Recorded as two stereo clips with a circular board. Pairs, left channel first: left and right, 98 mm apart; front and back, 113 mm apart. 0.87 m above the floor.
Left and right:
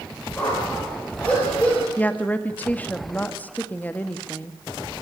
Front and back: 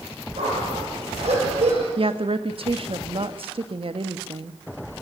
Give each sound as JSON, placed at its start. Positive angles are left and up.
{"t": 0.4, "sound": "a dog barking", "azimuth_deg": 165, "distance_m": 8.5}
{"t": 2.0, "sound": "a woman speaking", "azimuth_deg": 160, "distance_m": 1.4}